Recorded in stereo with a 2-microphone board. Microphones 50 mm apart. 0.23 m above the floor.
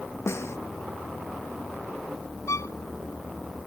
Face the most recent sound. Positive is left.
turn(degrees=90)